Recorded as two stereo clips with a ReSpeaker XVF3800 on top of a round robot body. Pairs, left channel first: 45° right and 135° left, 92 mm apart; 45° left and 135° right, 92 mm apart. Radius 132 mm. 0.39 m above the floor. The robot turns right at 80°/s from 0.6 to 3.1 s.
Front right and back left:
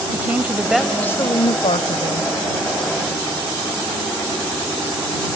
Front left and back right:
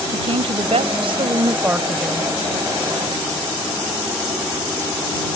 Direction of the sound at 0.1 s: 150° right.